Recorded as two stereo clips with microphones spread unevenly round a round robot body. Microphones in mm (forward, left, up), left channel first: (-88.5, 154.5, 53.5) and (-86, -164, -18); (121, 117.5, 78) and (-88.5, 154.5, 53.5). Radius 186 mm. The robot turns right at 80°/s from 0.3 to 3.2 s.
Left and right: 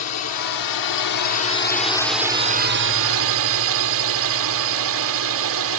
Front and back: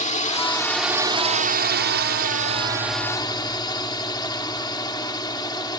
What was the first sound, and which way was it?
A drone, 45° left.